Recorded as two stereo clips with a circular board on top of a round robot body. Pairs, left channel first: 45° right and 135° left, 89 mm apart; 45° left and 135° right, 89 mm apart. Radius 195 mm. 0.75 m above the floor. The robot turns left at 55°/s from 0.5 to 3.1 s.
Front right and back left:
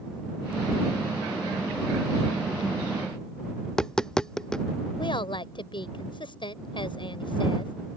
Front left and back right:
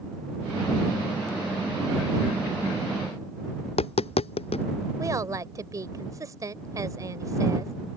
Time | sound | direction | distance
3.6 | tapping | 40° left | ?
5.0 | a woman speaking | 80° right | ?